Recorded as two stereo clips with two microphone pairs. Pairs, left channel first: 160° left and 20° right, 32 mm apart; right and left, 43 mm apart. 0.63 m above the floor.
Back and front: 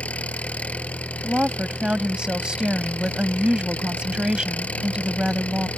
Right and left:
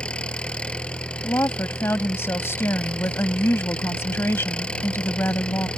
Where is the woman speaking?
80° right.